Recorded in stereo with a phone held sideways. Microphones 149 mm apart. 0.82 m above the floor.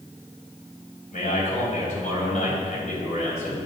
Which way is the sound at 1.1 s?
55° left (ahead or behind).